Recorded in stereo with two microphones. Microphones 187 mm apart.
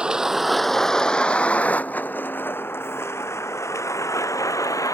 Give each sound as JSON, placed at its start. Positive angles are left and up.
{"t": 0.0, "sound": "a vehicle", "side_deg": -5}